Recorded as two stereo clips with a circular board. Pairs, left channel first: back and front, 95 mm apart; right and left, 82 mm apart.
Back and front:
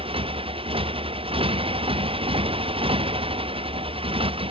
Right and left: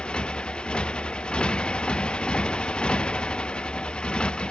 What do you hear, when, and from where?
0.0 s a motorcycle: 10° right